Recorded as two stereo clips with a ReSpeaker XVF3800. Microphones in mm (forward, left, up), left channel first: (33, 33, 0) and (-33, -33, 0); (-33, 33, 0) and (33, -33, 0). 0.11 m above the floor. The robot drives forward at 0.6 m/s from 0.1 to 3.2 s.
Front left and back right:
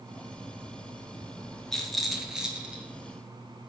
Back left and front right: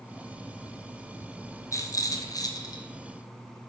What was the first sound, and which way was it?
A rattle, 125° left.